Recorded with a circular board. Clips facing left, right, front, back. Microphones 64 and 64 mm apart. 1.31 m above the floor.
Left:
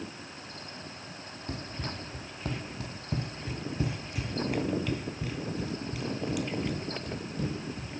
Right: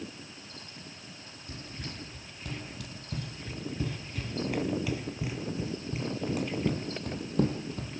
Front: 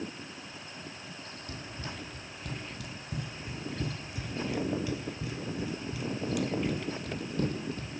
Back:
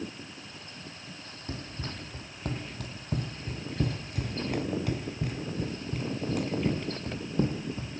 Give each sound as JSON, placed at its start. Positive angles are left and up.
{"t": 1.5, "sound": "running footsteps", "azimuth_deg": 130, "distance_m": 3.5}